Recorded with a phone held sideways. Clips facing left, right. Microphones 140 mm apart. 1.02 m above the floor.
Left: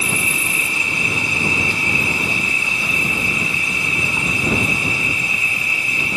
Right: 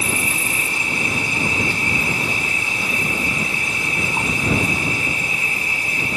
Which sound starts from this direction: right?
An insect, at 0.0 s.